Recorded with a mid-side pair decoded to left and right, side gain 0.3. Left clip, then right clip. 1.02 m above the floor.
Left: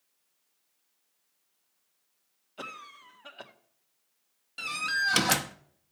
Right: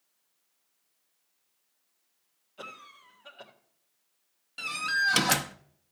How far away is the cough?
About 1.6 m.